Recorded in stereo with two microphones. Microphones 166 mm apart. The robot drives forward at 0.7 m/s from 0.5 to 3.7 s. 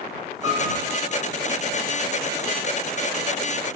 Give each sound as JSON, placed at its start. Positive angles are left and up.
{"t": 0.4, "sound": "a piano", "side_deg": -25, "distance_m": 3.0}